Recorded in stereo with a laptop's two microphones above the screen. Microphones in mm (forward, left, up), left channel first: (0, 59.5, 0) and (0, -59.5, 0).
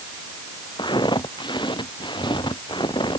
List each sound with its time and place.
0.8 s footsteps: 40° left (ahead or behind); by 3.2 s 45° left (ahead or behind)